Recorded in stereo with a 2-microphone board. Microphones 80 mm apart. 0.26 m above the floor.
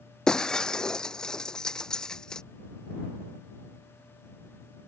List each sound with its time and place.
0.3 s breaking glass: 10° left (ahead or behind)